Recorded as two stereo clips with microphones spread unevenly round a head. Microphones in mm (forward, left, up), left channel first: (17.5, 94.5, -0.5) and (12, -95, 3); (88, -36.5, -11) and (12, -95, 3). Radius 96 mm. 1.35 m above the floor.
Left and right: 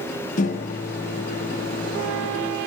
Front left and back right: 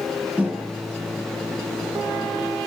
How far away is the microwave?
About 0.9 m.